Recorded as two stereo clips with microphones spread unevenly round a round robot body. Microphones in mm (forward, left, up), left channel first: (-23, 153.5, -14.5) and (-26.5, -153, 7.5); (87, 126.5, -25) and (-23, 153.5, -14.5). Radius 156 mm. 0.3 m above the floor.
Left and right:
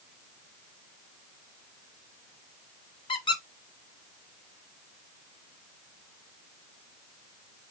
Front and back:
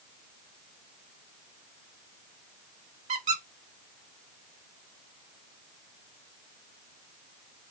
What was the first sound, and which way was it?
A squeak, 160° left.